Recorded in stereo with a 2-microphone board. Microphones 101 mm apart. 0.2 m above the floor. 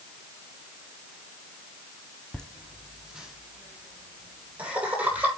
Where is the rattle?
I don't hear a rattle.